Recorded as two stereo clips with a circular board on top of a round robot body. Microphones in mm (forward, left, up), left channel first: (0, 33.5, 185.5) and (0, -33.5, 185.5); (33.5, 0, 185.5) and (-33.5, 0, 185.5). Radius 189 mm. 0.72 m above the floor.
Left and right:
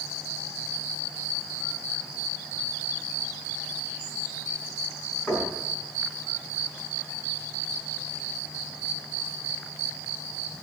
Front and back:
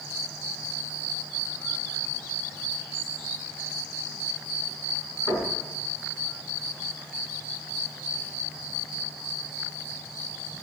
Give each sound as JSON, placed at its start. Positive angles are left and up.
{"t": 5.3, "sound": "knocking", "azimuth_deg": 10, "distance_m": 5.5}